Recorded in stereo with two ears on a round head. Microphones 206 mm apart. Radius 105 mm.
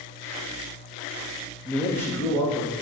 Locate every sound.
1.6 s a man speaking: 5° left (ahead or behind), 0.6 m; by 2.7 s 15° left (ahead or behind), 1.2 m